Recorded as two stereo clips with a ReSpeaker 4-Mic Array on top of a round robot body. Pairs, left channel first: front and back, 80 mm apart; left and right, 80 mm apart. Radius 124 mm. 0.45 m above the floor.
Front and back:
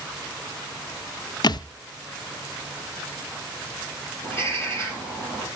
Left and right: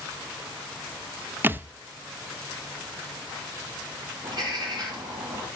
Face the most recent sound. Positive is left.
turn(degrees=-60)